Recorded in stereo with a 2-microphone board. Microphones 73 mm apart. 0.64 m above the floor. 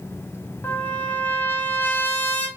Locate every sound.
0.6 s a trumpet: 25° left (ahead or behind), 0.6 m